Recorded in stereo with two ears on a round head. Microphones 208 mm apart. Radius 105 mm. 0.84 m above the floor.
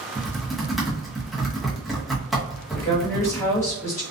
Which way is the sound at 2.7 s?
15° left (ahead or behind).